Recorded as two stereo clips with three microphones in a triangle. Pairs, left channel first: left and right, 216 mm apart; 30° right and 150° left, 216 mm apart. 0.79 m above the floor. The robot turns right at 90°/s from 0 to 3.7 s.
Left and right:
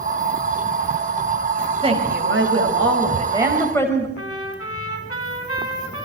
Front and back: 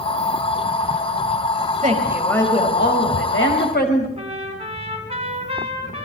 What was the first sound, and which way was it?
A woman speaking, 160° right.